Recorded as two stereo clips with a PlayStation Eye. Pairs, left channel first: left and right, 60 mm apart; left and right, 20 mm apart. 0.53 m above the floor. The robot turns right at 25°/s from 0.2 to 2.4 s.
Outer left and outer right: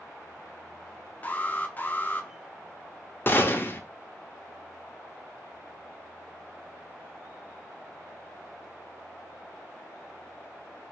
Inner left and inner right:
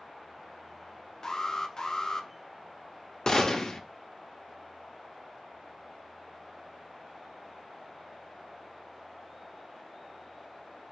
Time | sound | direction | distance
1.2 | an alarm | 25° left (ahead or behind) | 0.6 m
3.3 | a gunshot | 35° left (ahead or behind) | 0.5 m